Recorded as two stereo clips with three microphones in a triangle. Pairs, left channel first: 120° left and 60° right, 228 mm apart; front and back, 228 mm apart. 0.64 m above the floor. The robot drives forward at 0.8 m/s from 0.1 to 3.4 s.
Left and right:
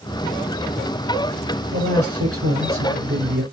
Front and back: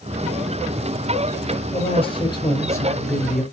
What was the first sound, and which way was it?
A man speaking, 60° right.